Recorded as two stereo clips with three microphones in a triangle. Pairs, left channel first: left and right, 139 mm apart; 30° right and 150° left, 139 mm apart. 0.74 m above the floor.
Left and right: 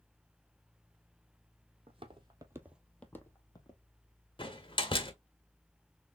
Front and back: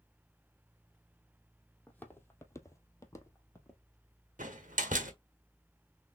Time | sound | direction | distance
1.9 | footsteps | 105° right | 1.1 m
4.4 | a door slam | 140° left | 1.1 m